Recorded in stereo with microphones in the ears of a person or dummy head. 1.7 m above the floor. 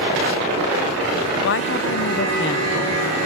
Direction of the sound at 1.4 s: 65° left (ahead or behind).